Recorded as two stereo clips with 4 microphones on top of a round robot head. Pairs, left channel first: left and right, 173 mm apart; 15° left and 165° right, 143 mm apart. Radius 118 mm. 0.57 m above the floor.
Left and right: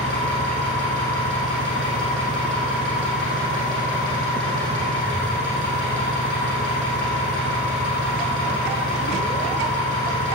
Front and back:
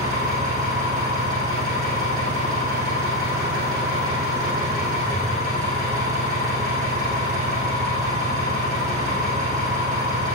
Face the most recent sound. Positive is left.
turn(degrees=-120)